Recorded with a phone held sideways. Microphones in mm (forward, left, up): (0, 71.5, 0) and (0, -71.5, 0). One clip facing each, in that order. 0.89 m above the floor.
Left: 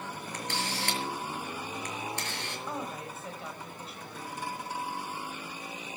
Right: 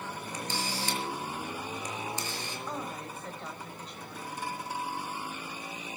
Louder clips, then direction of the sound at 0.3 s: Left 1 dB; 65° left (ahead or behind).